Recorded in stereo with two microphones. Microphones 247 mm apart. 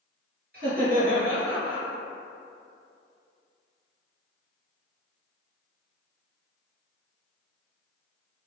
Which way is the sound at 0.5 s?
40° right (ahead or behind).